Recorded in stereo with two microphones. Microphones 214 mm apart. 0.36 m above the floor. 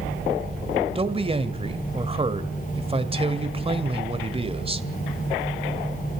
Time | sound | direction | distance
0.9 | a man speaking | 25° right (ahead or behind) | 1.6 m